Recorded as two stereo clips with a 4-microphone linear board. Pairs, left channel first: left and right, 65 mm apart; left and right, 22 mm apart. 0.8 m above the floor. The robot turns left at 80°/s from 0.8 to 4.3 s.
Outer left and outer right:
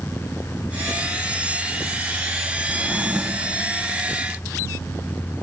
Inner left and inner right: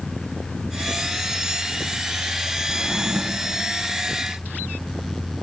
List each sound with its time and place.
2.7 s a drawer: 130° right, 0.6 m; by 3.6 s 155° left, 0.6 m